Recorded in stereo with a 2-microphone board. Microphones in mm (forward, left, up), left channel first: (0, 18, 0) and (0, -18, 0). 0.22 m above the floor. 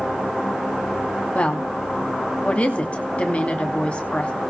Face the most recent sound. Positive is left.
turn(degrees=35)  # may be behind; listen again after turning